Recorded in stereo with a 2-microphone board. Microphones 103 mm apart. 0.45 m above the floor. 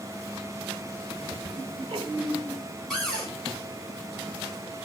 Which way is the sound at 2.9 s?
5° left (ahead or behind).